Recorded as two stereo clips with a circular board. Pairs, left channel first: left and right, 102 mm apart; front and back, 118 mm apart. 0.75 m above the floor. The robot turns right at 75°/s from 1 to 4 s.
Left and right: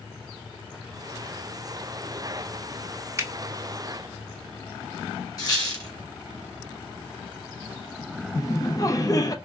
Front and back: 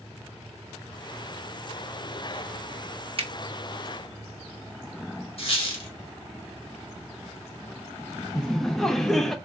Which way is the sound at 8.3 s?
85° left.